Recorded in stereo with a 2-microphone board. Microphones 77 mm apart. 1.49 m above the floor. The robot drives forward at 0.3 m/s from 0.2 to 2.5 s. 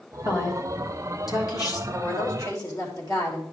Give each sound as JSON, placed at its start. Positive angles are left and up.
{"t": 0.2, "sound": "a woman speaking", "side_deg": 45, "distance_m": 2.0}
{"t": 1.9, "sound": "a woman speaking", "side_deg": 50, "distance_m": 3.5}